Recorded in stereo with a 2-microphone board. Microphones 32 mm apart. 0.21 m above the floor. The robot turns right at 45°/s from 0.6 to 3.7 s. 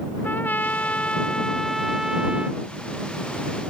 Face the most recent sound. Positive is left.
turn(degrees=-100)